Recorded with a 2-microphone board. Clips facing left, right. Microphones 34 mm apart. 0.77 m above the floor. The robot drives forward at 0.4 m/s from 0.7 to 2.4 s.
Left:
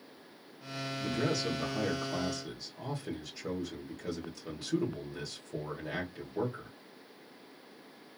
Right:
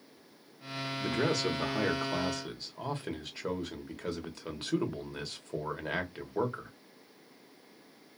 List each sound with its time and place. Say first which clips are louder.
1.0 s a man speaking: right 2 dB; 60° right (ahead or behind), 1.0 m; by 6.7 s 45° right (ahead or behind), 1.3 m